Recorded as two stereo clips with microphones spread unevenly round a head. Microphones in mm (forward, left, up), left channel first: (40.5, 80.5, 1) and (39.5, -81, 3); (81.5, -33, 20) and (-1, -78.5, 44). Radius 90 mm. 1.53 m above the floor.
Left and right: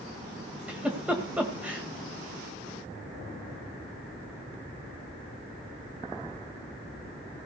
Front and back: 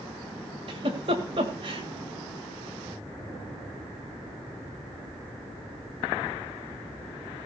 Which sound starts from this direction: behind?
A giggle, at 0.7 s.